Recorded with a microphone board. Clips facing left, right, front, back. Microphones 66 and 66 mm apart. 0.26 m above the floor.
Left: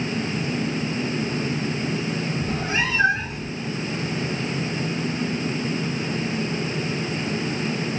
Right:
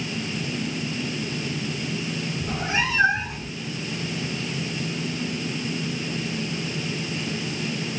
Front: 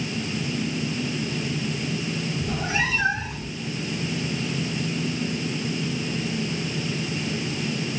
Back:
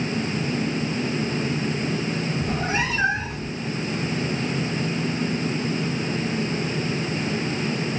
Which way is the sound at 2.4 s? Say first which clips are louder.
Right 1 dB, even; 140° right.